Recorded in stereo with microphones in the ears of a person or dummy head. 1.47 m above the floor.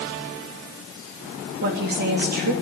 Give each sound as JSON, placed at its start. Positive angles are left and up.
{"t": 1.6, "sound": "a woman speaking", "side_deg": -55, "distance_m": 3.0}